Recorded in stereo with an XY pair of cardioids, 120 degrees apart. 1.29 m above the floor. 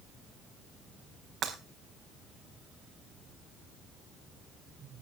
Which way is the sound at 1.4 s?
65° right.